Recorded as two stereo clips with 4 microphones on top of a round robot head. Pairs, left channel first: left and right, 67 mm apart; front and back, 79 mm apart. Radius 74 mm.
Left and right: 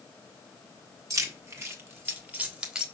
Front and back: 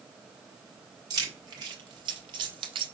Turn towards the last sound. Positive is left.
turn(degrees=-165)